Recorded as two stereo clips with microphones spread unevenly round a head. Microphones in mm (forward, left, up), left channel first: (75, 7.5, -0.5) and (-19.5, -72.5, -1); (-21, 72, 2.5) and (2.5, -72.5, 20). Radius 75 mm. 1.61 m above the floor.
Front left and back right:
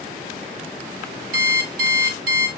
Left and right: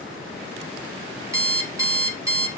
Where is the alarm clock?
145° right, 2.5 m.